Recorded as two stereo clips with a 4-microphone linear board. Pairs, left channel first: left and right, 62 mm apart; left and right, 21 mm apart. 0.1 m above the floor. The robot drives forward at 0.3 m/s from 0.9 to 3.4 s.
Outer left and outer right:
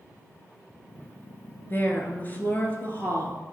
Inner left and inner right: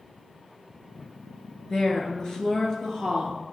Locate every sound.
1.7 s a woman speaking: 30° left (ahead or behind), 1.2 m; by 3.4 s 25° left (ahead or behind), 1.4 m